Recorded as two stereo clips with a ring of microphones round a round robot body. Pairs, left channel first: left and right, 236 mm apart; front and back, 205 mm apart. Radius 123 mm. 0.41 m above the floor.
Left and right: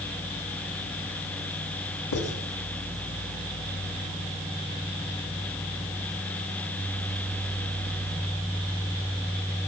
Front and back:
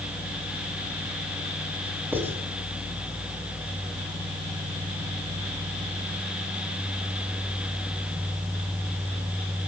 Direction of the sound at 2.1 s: 100° left.